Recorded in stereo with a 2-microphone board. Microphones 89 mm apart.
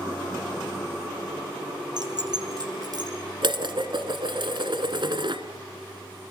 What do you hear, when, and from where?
2.0 s keys jangling: 50° right (ahead or behind), 3.5 m; by 3.1 s 45° right (ahead or behind), 5 m
3.4 s dishes clattering: 60° right (ahead or behind), 1.8 m